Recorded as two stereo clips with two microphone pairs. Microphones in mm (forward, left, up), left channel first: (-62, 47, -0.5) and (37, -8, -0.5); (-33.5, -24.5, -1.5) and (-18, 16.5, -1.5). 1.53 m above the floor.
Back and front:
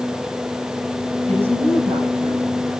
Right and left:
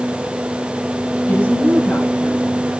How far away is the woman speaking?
About 7.5 m.